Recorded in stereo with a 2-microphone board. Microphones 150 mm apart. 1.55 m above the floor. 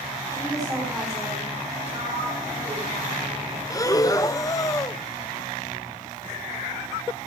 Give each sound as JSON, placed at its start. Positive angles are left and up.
{"t": 0.3, "sound": "a woman speaking", "side_deg": -25, "distance_m": 7.5}
{"t": 1.9, "sound": "a sliding door", "side_deg": -50, "distance_m": 8.5}
{"t": 3.7, "sound": "breathing", "side_deg": 25, "distance_m": 0.6}